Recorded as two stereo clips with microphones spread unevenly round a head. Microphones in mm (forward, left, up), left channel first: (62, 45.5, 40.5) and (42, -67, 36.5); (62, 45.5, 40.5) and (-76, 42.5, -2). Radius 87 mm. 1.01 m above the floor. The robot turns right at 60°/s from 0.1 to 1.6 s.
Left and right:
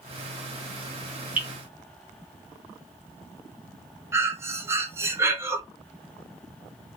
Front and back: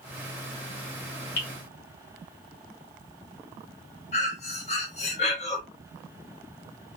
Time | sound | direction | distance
1.4 | dripping | 25° right | 1.6 m
4.1 | breathing | 30° right | 0.6 m